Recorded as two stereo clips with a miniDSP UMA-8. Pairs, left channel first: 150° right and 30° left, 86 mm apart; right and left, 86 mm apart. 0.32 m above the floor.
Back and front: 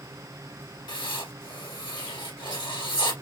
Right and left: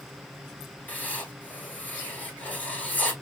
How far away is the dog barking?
No dog barking in this recording.